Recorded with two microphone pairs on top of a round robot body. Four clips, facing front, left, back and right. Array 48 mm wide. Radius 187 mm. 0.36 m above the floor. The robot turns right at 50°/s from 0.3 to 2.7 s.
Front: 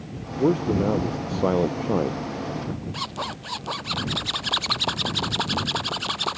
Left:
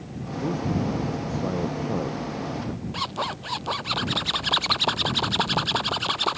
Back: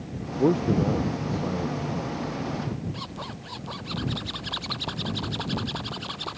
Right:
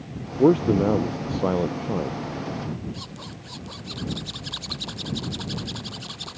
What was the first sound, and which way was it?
A man speaking, 90° right.